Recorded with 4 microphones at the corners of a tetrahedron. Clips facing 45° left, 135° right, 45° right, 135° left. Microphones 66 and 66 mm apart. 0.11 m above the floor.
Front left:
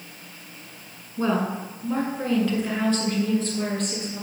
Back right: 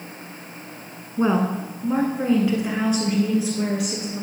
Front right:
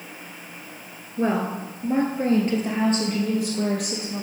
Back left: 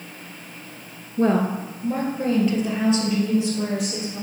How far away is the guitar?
I don't hear a guitar.